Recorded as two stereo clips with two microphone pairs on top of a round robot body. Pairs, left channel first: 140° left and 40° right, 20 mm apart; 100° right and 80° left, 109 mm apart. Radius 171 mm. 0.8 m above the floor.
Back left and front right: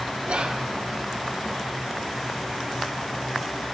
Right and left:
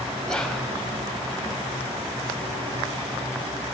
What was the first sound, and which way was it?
Whispering, 15° right.